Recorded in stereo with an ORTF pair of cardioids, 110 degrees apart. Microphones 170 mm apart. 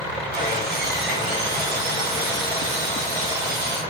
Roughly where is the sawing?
Ahead right.